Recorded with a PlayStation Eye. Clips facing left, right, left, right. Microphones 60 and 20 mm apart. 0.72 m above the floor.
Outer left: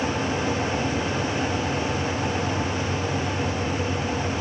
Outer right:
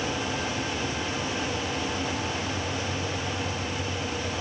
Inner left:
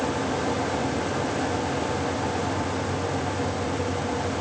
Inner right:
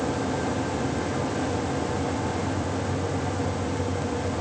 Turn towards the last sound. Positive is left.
No sound to turn to.